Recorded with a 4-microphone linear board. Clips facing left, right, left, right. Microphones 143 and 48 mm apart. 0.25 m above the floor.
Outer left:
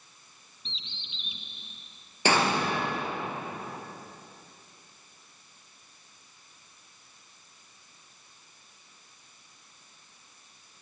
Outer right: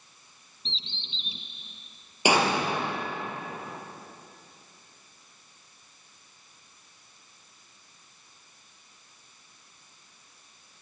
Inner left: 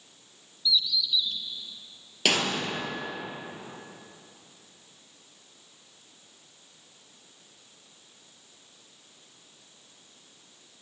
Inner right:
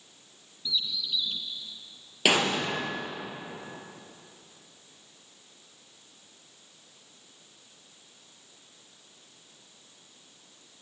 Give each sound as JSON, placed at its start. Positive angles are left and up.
{"t": 0.7, "sound": "a bird", "side_deg": -35, "distance_m": 1.8}
{"t": 2.2, "sound": "an explosion", "side_deg": -10, "distance_m": 3.5}